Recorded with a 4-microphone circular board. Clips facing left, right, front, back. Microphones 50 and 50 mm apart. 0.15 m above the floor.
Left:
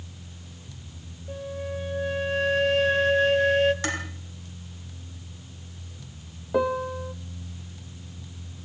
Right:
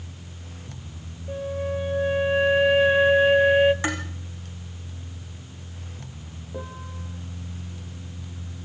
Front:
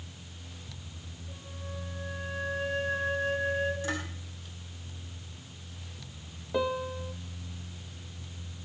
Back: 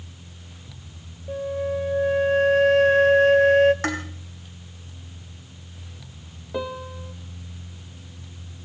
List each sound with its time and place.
1.3 s a flute: 165° right, 1.7 m
3.8 s dishes clattering: 160° right, 6 m
6.5 s a piano: 90° left, 1.4 m